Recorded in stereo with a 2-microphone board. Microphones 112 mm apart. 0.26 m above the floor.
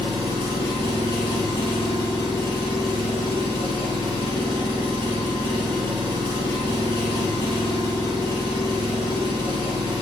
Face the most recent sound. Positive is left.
turn(degrees=-45)  # may be behind; listen again after turning